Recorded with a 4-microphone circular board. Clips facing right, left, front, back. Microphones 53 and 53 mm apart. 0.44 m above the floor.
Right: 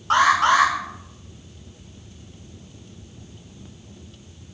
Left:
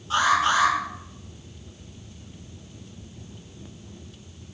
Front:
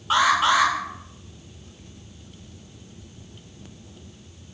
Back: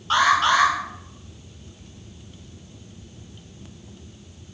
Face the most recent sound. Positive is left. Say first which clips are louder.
# right 4 dB, back 1 dB
turn(degrees=-80)